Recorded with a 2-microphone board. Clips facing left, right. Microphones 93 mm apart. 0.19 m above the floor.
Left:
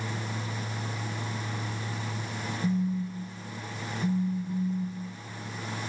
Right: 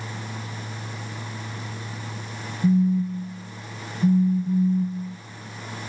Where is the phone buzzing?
45° right (ahead or behind), 1.4 m.